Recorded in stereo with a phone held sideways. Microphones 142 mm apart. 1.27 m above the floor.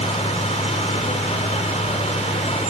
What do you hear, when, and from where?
0.0 s a fan: 50° left (ahead or behind)